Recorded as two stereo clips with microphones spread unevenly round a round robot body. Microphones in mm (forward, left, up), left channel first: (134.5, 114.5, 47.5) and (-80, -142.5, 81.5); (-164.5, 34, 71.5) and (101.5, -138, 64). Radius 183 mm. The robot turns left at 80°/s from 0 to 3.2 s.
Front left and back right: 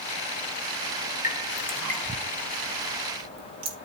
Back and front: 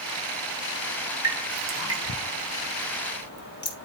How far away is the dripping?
About 2.5 m.